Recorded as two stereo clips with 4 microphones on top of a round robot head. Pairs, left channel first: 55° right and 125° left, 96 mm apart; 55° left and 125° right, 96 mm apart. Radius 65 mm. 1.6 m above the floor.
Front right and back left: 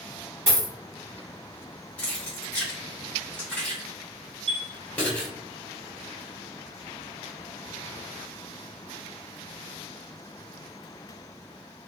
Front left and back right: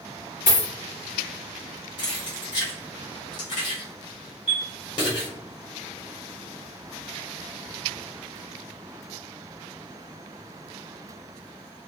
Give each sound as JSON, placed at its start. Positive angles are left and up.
{"t": 0.5, "sound": "a dropped coin", "azimuth_deg": 65, "distance_m": 1.2}
{"t": 2.0, "sound": "keys jangling", "azimuth_deg": 20, "distance_m": 0.8}
{"t": 4.5, "sound": "a chime", "azimuth_deg": 160, "distance_m": 0.5}